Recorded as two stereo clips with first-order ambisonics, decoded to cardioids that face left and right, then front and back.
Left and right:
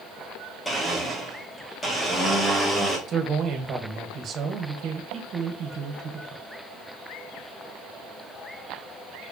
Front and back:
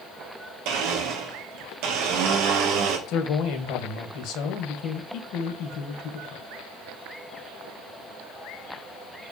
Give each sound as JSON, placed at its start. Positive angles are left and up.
{"t": 0.7, "sound": "a blender", "azimuth_deg": 175, "distance_m": 2.0}
{"t": 3.1, "sound": "a man speaking", "azimuth_deg": -35, "distance_m": 1.6}